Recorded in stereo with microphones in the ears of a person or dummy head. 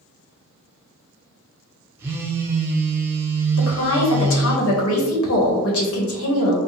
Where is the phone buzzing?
15° right (ahead or behind), 0.8 m.